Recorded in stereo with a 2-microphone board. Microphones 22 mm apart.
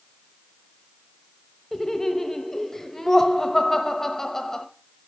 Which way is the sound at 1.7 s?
25° left (ahead or behind).